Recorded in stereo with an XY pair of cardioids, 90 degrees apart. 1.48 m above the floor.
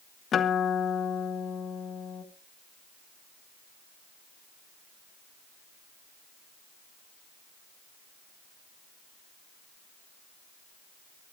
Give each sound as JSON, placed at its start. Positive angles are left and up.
{"t": 0.3, "sound": "a guitar", "azimuth_deg": 65, "distance_m": 1.4}